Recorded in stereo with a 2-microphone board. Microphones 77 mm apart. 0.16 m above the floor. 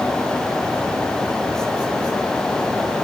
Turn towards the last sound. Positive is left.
No sound to turn to.